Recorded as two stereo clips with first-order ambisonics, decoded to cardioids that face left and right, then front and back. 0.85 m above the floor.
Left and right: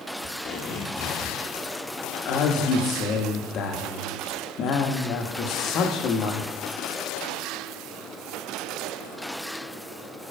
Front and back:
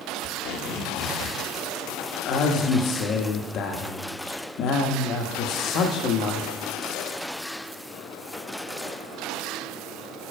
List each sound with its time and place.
0.2 s tape being pulled: 25° left, 1.2 m
2.2 s a man speaking: 45° left, 1.0 m